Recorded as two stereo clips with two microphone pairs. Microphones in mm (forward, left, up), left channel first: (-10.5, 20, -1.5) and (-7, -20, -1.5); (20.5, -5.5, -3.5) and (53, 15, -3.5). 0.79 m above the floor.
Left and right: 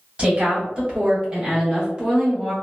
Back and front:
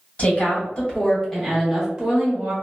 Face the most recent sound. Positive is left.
turn(degrees=-10)